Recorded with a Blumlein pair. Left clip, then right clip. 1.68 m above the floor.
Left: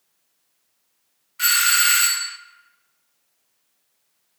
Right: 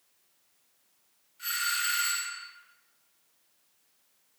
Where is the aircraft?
I don't hear an aircraft.